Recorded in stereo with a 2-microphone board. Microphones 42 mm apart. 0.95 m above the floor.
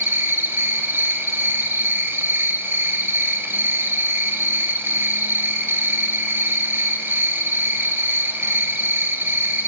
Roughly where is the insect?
Right.